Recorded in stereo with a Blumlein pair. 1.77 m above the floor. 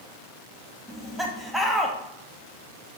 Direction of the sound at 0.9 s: 5° right.